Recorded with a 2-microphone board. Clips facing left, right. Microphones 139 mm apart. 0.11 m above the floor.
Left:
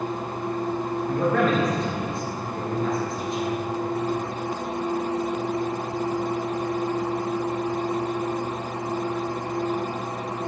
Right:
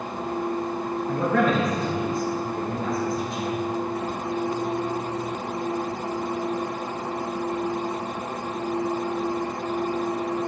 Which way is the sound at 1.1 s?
Centre (ahead or behind).